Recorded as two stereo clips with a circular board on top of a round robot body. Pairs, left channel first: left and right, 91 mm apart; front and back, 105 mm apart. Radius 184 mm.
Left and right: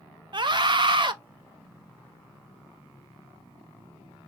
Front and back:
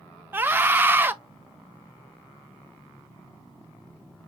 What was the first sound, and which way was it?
A scream, 110° right.